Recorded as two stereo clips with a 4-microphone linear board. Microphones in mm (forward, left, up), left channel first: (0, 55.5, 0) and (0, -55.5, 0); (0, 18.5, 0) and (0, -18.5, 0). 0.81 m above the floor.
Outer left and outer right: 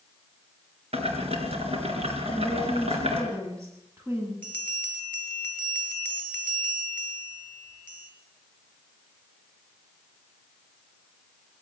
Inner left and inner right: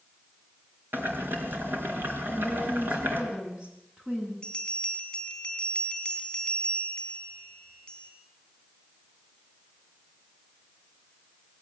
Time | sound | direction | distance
0.9 | boiling | 65° right (ahead or behind) | 4 m
2.3 | a woman speaking | 25° right (ahead or behind) | 9 m
4.4 | a bell | 20° left (ahead or behind) | 4 m